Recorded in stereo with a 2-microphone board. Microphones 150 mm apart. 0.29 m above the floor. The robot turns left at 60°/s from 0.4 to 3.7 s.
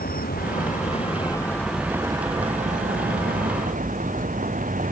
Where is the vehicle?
80° left; by 4.9 s 120° right.